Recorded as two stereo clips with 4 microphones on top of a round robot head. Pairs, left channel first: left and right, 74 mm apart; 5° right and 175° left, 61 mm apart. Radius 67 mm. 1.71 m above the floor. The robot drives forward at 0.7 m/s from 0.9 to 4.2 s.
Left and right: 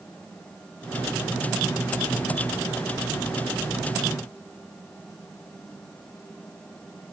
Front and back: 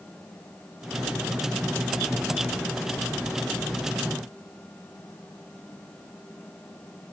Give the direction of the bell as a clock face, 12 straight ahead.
I don't hear a bell.